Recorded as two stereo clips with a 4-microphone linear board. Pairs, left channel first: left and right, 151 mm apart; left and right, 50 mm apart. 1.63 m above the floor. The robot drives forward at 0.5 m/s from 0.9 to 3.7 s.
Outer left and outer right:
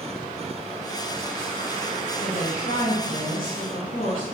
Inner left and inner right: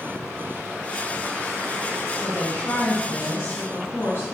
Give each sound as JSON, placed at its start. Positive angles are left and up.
{"t": 2.1, "sound": "a woman speaking", "side_deg": 75, "distance_m": 2.5}